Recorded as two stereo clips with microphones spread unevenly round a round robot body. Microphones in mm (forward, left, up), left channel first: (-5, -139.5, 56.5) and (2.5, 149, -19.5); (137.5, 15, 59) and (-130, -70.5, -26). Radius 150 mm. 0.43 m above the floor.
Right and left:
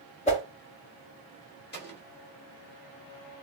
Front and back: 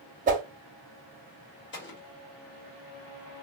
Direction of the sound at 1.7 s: 35° right.